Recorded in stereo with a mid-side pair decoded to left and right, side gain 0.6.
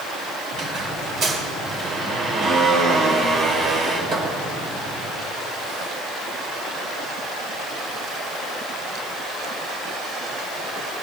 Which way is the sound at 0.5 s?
45° right.